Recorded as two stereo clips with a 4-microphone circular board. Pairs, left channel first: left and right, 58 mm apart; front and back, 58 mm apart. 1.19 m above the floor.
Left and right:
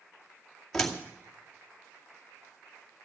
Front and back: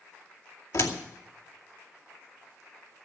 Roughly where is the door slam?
Ahead.